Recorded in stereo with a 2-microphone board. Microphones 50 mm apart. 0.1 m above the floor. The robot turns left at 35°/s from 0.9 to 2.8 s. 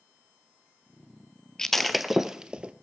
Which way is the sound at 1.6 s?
10° left (ahead or behind).